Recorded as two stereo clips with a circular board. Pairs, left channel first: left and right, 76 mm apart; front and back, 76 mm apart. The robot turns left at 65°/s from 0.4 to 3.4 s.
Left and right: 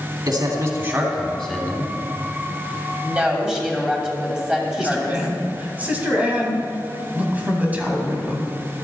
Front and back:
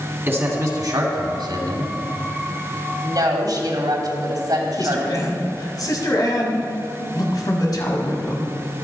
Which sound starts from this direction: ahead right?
A man speaking, at 4.8 s.